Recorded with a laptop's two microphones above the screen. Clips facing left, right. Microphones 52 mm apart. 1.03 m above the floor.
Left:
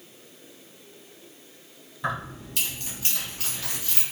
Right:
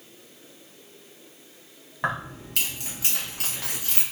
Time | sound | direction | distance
2.0 | keys jangling | 60° right (ahead or behind) | 1.4 m